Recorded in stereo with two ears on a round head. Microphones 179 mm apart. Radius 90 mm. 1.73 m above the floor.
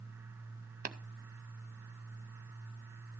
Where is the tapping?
40° right (ahead or behind), 0.7 m.